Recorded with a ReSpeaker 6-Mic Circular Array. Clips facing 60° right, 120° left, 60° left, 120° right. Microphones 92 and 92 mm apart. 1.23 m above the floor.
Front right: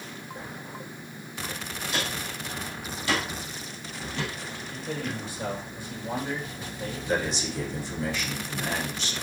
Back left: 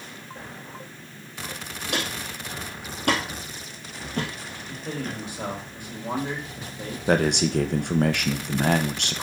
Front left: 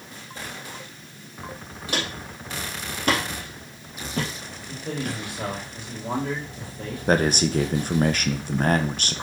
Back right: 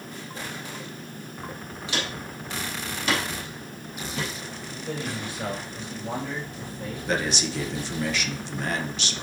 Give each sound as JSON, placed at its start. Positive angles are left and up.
{"t": 1.9, "sound": "footsteps", "azimuth_deg": 105, "distance_m": 3.0}
{"t": 4.7, "sound": "a man speaking", "azimuth_deg": 85, "distance_m": 4.0}
{"t": 7.1, "sound": "a man speaking", "azimuth_deg": 100, "distance_m": 1.0}